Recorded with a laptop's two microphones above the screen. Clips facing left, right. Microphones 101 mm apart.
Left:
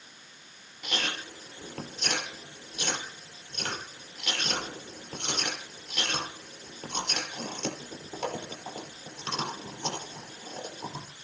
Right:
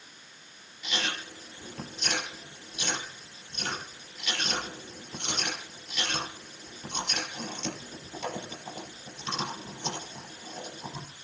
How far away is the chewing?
About 5 m.